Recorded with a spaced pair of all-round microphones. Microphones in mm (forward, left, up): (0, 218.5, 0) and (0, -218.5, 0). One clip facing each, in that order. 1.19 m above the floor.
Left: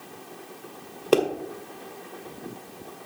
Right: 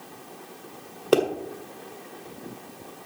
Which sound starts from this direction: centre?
A pop, at 1.1 s.